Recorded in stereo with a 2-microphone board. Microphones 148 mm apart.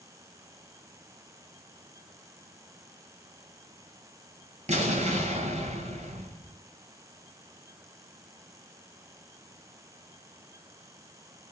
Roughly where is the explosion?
Right.